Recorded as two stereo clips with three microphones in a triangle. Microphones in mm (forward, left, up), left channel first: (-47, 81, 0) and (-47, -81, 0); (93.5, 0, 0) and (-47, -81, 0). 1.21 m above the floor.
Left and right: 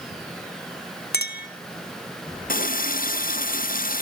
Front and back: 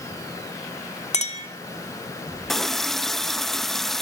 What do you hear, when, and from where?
1.1 s a clink: 75° left, 2.5 m
2.5 s a running tap: 120° left, 0.7 m